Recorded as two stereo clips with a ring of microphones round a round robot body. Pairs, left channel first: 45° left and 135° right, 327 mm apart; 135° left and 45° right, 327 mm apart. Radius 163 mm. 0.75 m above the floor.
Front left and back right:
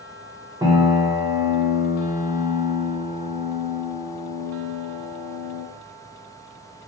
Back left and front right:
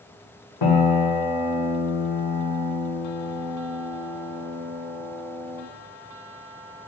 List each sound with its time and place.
0.6 s a piano: 145° left, 1.2 m